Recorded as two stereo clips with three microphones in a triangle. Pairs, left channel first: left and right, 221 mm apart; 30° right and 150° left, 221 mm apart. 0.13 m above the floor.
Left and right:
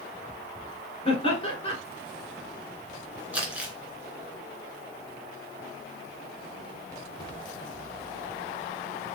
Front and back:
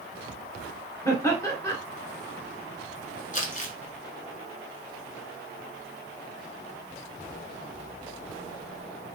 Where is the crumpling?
10° right, 1.5 m.